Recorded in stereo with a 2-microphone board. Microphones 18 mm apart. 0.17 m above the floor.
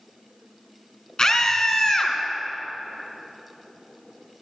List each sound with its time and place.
1.2 s a scream: 40° left (ahead or behind), 2 m